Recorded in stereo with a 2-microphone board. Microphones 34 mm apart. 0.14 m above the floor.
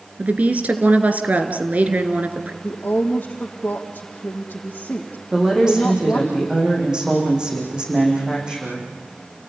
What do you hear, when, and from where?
0.2 s a woman speaking: 45° right (ahead or behind), 2.5 m
2.6 s a woman speaking: 50° left (ahead or behind), 3.5 m
5.3 s a woman speaking: 20° right (ahead or behind), 8.5 m